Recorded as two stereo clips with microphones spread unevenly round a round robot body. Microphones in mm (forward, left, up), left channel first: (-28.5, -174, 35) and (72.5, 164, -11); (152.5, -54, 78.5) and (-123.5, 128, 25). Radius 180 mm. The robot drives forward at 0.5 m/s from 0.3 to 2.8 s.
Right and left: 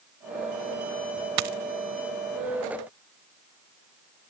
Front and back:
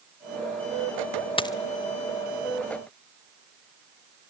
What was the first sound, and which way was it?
A dropped coin, 45° left.